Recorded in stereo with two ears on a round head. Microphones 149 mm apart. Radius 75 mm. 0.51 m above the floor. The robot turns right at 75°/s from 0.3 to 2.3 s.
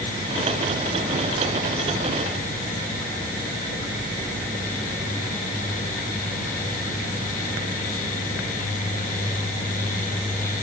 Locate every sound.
Only background noise.